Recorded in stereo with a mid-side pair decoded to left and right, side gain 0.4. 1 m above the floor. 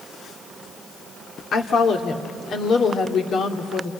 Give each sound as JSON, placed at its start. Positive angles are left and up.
{"t": 1.5, "sound": "a woman speaking", "azimuth_deg": 65, "distance_m": 2.5}